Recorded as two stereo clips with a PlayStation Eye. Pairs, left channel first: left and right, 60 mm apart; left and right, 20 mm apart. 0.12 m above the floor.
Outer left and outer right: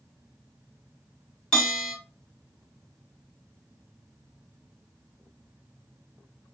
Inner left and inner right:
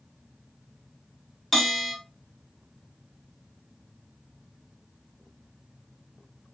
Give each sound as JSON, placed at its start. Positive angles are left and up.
{"t": 1.5, "sound": "a bell", "side_deg": 15, "distance_m": 2.0}